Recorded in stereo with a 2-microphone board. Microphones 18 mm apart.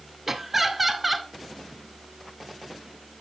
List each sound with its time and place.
0.3 s laughter: 20° right (ahead or behind), 1.4 m; by 1.3 s 5° right (ahead or behind), 1.1 m